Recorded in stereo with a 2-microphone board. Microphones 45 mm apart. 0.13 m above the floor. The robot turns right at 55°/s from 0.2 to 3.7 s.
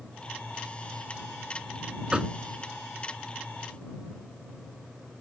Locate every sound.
2.1 s knocking: 20° right (ahead or behind); by 2.4 s 15° right (ahead or behind)